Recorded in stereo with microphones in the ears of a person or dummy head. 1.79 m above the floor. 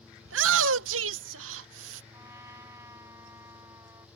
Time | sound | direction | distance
0.2 | a shout | 75° right (ahead or behind) | ?
2.1 | a trumpet | 20° right (ahead or behind) | ?